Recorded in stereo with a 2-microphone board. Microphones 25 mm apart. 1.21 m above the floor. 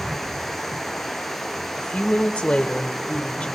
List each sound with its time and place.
0.0 s running water: 5° left (ahead or behind), 5.5 m
1.8 s a woman speaking: 40° left (ahead or behind), 1.2 m